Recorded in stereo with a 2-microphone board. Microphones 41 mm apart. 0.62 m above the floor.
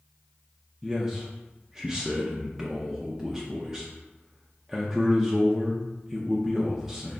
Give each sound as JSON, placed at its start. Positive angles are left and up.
{"t": 0.8, "sound": "a man speaking", "side_deg": -10, "distance_m": 0.6}